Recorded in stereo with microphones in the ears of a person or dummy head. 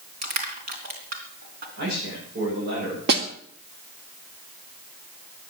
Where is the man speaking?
50° right (ahead or behind), 8 m.